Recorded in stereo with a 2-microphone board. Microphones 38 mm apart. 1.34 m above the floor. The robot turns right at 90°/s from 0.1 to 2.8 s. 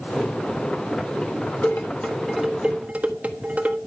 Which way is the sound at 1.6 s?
60° left (ahead or behind).